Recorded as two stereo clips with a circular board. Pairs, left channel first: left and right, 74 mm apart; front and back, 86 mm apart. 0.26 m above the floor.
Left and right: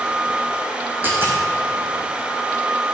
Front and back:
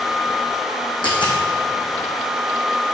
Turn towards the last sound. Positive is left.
turn(degrees=-25)